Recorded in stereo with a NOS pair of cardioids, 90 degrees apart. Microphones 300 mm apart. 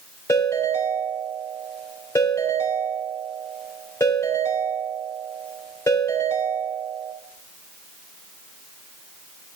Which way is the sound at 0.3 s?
10° left.